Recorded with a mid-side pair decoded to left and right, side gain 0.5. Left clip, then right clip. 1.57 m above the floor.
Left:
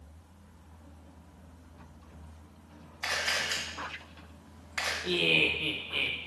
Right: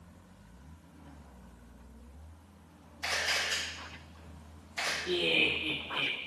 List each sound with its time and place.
3.0 s a camera shutter: 40° left, 1.8 m
5.0 s laughter: 65° left, 0.7 m